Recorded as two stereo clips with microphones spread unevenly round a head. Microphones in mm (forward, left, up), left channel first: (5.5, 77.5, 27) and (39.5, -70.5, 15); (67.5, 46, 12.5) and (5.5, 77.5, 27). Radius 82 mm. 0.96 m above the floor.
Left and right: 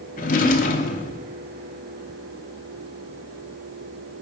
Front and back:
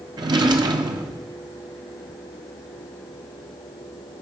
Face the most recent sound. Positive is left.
turn(degrees=150)